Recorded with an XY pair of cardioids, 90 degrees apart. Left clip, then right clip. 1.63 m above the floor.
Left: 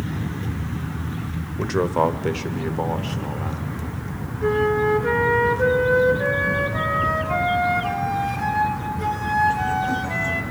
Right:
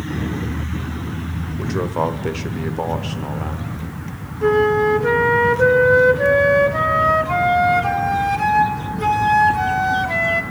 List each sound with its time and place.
1.6 s a man speaking: 35° left, 0.7 m; by 3.7 s 30° right, 1.5 m
4.4 s a flute: 55° right, 1.1 m